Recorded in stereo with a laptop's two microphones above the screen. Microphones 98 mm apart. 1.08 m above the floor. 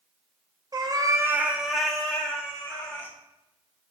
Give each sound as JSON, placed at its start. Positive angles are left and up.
{"t": 0.7, "sound": "a cat meowing", "side_deg": -40, "distance_m": 0.5}